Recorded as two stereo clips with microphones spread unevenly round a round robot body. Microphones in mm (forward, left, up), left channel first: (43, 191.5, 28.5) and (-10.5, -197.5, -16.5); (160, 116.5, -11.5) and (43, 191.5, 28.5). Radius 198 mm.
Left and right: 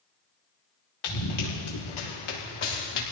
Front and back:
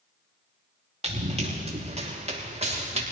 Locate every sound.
1.0 s running footsteps: 105° left, 5.5 m; by 3.0 s 110° left, 7 m